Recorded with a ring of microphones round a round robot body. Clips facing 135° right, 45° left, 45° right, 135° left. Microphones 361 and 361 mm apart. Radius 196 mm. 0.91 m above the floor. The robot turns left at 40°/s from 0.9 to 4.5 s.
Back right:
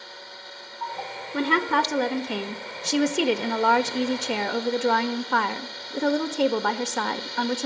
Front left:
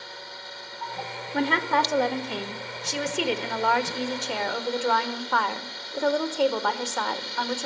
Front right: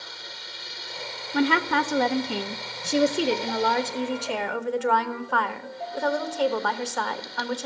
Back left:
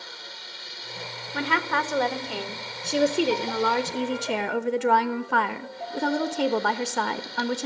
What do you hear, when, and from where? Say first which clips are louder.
1.3 s a woman speaking: back right 1 dB, front right 6 dB; 55° right, 0.6 m; by 7.7 s straight behind, 0.6 m